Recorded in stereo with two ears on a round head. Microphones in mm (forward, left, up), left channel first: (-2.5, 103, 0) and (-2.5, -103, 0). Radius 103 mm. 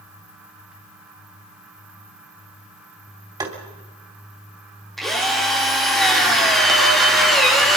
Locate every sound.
3.4 s tapping: 20° right (ahead or behind), 3.5 m
5.0 s a drill: centre (ahead or behind), 4 m